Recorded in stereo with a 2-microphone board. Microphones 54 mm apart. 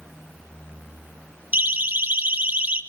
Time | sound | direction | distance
1.5 | a siren | 30° right (ahead or behind) | 2.5 m